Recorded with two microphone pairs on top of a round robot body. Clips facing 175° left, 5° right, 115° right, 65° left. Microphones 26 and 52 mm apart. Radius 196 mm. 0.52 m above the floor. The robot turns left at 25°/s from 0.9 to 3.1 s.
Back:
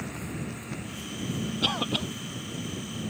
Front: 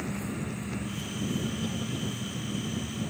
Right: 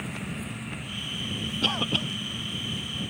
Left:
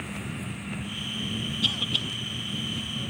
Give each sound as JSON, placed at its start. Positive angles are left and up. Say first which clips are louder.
{"t": 1.6, "sound": "a cough", "louder": "back 6 dB, right 3 dB", "azimuth_deg": -160}